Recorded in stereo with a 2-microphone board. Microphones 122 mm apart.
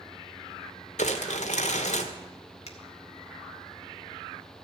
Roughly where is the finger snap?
Left.